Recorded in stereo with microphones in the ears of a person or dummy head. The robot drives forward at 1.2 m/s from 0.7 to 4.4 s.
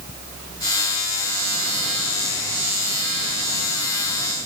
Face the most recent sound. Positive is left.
No sound to turn to.